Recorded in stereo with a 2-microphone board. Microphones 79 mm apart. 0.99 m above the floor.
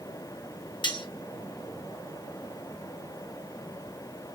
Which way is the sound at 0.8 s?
70° left (ahead or behind).